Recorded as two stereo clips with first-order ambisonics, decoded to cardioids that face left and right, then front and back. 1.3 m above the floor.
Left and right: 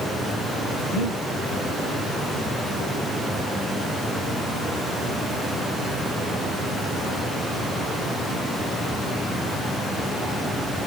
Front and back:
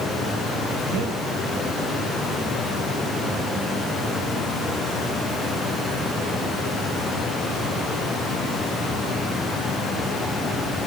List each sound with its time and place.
0.9 s breathing: straight behind, 2 m